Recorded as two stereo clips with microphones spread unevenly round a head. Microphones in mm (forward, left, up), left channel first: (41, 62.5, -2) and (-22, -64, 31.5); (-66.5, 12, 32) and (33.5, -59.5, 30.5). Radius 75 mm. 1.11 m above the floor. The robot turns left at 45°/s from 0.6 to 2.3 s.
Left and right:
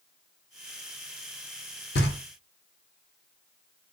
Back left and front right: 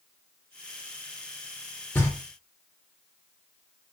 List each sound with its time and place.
1.9 s knocking: 70° left, 1.0 m; by 2.2 s 60° left, 1.0 m